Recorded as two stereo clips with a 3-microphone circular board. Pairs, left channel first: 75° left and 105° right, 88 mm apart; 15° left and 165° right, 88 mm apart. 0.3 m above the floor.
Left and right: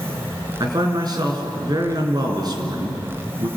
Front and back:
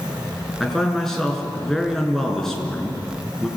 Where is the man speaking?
70° right, 4.5 m.